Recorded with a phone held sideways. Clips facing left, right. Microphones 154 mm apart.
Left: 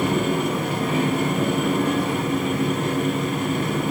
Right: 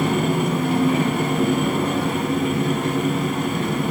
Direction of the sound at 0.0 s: 35° right (ahead or behind).